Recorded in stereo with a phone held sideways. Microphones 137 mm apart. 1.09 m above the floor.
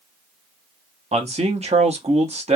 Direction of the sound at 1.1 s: 55° right (ahead or behind).